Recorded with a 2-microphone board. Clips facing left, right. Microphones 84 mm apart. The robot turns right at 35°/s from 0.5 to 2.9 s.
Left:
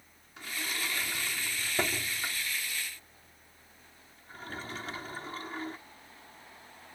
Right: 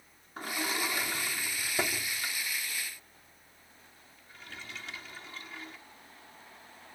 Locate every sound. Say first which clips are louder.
0.4 s a sliding door: right 4 dB; 40° right (ahead or behind); by 5.8 s 40° left (ahead or behind)